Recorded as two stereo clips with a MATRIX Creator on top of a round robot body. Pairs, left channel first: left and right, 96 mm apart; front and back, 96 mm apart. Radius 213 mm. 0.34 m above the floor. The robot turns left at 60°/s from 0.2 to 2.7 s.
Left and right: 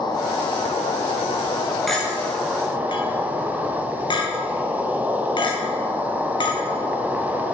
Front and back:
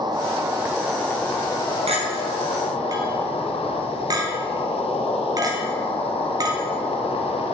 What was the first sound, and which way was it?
An insect, 135° left.